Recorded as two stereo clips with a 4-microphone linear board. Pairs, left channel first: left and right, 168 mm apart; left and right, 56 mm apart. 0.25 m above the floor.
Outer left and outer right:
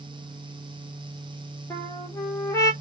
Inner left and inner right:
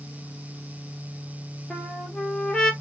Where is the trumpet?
15° left (ahead or behind), 1.3 m.